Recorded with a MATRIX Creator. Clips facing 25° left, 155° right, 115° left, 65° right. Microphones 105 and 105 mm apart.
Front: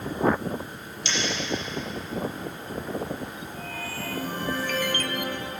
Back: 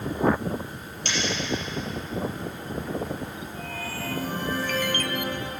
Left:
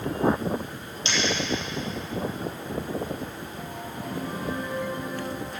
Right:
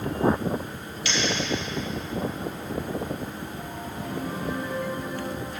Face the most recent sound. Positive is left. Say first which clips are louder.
# even, even
turn(degrees=170)